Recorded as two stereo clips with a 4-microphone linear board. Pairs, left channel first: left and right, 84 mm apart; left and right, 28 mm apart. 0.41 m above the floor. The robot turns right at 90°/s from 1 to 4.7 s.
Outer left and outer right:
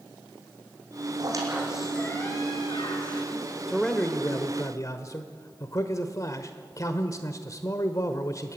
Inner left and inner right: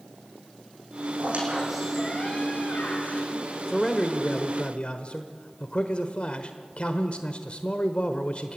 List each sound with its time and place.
1.2 s a squeak: 55° right, 4.5 m; by 3.3 s 130° left, 4.5 m
3.7 s a man speaking: 5° right, 1.2 m; by 8.6 s 90° left, 1.2 m